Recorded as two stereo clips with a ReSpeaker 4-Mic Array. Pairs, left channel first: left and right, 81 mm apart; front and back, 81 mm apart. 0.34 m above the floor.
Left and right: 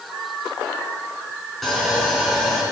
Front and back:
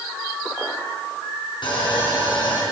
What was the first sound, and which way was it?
Sawing, straight ahead.